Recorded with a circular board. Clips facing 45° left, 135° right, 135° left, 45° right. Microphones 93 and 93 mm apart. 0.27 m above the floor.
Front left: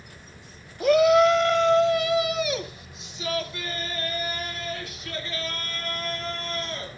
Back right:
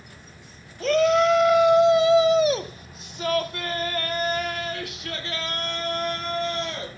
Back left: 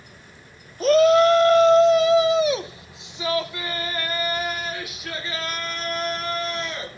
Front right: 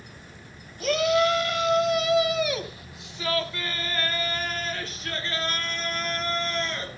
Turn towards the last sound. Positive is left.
turn(degrees=-140)